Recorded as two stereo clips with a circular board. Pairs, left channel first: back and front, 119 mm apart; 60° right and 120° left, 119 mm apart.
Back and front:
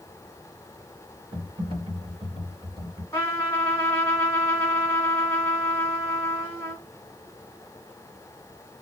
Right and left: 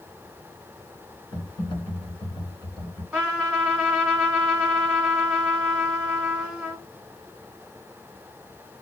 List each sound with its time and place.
1.3 s typing on a keyboard: 20° right, 1.4 m
3.1 s a trumpet: straight behind, 1.6 m